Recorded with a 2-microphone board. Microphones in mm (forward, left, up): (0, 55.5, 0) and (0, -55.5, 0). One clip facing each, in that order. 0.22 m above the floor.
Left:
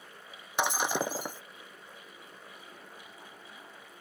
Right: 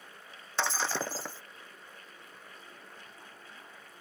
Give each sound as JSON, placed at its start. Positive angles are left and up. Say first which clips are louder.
{"t": 0.6, "sound": "breaking glass", "louder": "left 3 dB", "side_deg": 15}